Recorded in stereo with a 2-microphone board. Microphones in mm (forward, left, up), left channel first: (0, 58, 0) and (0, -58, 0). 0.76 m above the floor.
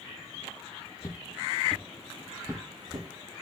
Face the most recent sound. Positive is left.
turn(degrees=-35)  # may be behind; listen again after turning